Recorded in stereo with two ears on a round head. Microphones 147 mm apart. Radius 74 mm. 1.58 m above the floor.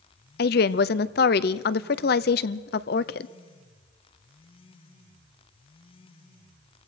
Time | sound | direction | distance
0.4 | a woman speaking | 65° left (ahead or behind) | 0.7 m